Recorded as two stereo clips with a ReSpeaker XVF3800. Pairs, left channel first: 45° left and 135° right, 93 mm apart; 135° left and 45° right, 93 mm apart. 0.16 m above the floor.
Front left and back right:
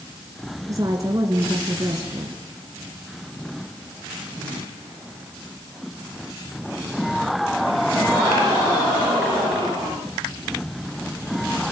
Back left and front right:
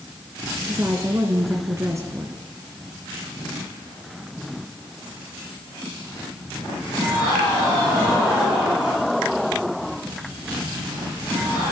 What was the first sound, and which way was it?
A woman speaking, 95° right.